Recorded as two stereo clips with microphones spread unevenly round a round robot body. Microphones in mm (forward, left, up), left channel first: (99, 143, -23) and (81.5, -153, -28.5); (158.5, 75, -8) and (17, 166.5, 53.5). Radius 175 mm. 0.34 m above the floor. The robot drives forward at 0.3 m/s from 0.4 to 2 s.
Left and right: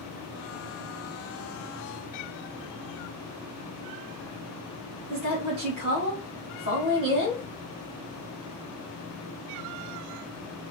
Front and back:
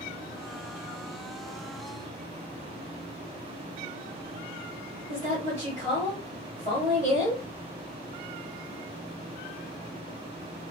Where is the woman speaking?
145° right, 1.0 m.